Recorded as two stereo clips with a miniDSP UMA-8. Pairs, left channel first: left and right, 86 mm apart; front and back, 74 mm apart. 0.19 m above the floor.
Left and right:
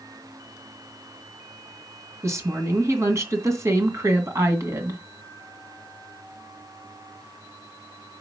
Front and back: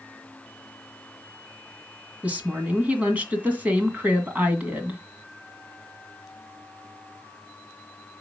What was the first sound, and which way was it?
A woman speaking, 120° right.